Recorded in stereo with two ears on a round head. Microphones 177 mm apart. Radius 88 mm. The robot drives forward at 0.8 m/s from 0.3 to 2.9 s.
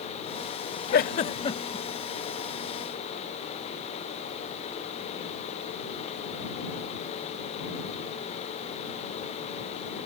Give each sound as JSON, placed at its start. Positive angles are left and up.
{"t": 0.9, "sound": "a giggle", "side_deg": 50}